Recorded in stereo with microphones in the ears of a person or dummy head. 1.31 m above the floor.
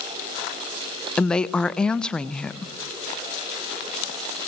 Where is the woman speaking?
5° left (ahead or behind), 0.8 m.